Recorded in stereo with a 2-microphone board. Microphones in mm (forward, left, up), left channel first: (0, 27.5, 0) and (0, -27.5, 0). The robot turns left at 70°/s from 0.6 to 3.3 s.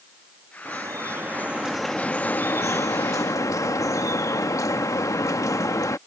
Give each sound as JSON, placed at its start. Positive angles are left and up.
{"t": 0.7, "sound": "dripping", "azimuth_deg": -95}